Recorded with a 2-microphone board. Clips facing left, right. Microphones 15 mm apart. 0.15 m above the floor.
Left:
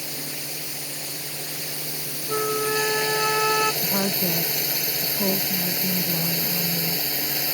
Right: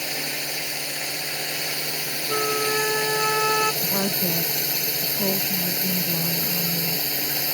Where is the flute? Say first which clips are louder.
Even; 5° right (ahead or behind).